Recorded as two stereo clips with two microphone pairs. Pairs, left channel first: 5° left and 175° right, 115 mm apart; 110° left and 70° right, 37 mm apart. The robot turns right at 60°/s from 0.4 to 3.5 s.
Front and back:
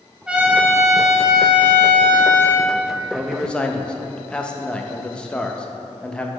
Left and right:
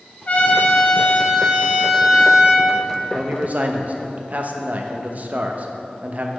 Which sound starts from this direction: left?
A trumpet, at 0.3 s.